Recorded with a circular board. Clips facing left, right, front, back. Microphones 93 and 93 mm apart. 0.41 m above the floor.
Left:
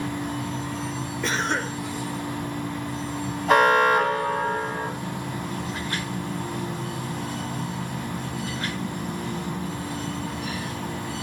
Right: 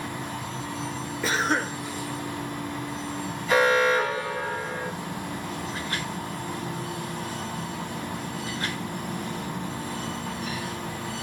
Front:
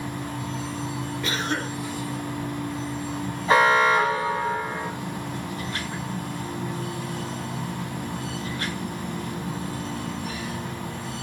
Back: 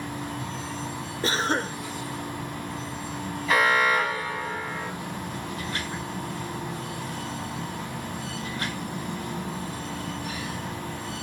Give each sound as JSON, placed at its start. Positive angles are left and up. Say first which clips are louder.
{"t": 1.2, "sound": "a cough", "louder": "right 1 dB, back 4 dB", "azimuth_deg": -175, "distance_m": 1.5}
{"t": 3.5, "sound": "an alarm", "louder": "left 3 dB, front 4 dB", "azimuth_deg": 60, "distance_m": 3.5}